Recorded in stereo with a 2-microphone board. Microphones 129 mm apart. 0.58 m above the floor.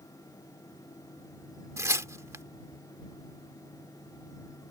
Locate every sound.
1.8 s tearing paper: 20° right (ahead or behind)